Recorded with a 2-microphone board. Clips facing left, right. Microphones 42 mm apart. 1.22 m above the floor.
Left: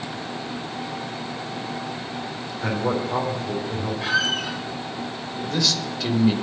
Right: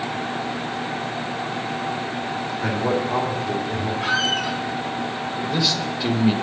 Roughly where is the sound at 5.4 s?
Right.